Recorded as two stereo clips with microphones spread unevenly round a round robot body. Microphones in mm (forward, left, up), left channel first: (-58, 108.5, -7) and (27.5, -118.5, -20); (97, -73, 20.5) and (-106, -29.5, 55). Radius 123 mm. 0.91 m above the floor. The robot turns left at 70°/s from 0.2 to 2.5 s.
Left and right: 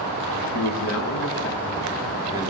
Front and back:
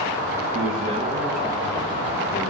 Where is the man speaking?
130° left, 1.2 m; by 2.5 s 5° right, 1.2 m.